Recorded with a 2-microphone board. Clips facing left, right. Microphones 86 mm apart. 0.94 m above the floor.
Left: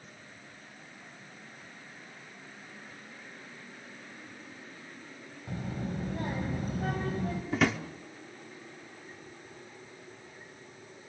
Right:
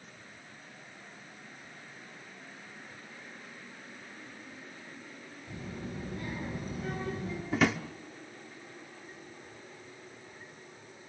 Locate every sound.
5.5 s a child speaking: 55° left (ahead or behind), 4 m
7.5 s a drawer: centre (ahead or behind), 1.0 m